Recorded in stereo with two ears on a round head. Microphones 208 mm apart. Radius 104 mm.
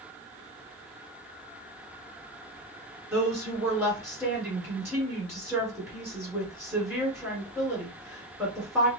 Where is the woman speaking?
10° right (ahead or behind), 1.4 m.